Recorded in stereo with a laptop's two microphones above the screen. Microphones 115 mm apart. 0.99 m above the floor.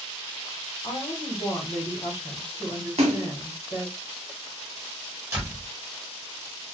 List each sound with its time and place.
0.8 s a woman speaking: 40° left (ahead or behind), 1.1 m
3.0 s a splash: 70° right (ahead or behind), 1.2 m
5.3 s a door slam: 20° right (ahead or behind), 1.3 m